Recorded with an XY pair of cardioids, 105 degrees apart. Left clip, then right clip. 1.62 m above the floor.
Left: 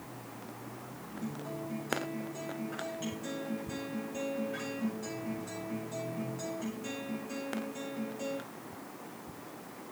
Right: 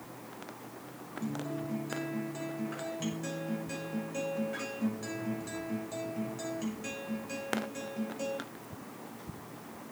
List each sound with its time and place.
1.2 s a guitar: 40° right, 6.5 m